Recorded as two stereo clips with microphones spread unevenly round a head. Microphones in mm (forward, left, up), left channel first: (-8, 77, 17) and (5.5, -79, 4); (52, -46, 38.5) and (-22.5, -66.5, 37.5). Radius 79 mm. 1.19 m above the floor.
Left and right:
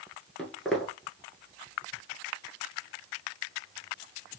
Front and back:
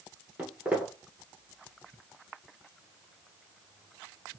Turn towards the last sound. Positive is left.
turn(degrees=160)